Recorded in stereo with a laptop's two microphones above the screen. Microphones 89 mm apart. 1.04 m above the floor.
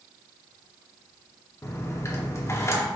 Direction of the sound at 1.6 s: 35° left (ahead or behind).